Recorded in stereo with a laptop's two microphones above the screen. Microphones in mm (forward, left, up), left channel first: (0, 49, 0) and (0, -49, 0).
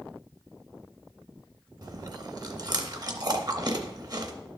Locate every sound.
1.8 s chewing: 40° right (ahead or behind), 0.7 m